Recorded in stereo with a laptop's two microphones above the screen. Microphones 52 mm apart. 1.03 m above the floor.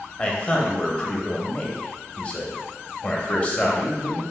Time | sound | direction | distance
0.2 | a man speaking | 25° left (ahead or behind) | 0.7 m